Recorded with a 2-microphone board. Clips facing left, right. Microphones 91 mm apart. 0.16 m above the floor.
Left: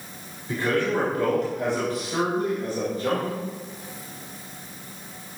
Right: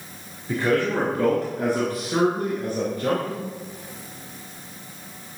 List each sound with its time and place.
0.5 s a man speaking: 20° right (ahead or behind), 1.9 m; by 3.4 s 60° right (ahead or behind), 2.5 m